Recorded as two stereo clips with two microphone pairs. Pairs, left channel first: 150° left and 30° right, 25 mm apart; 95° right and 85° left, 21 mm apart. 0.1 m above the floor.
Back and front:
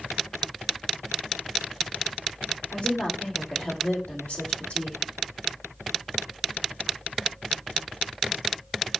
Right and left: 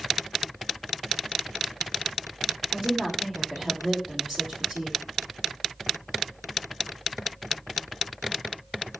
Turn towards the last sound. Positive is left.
turn(degrees=150)